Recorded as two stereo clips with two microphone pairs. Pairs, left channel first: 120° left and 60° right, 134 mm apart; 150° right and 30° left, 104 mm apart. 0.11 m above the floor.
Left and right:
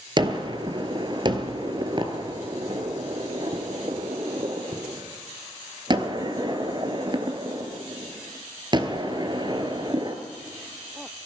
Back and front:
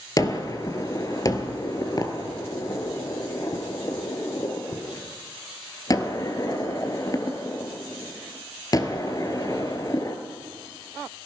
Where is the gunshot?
105° right, 1.0 m.